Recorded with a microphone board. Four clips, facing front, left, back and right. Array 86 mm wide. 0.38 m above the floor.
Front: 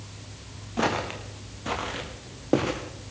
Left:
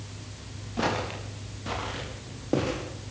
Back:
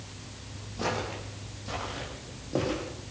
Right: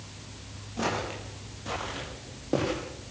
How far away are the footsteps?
About 6.5 m.